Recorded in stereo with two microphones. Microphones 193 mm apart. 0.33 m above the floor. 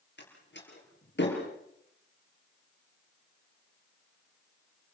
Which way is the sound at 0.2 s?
65° left (ahead or behind).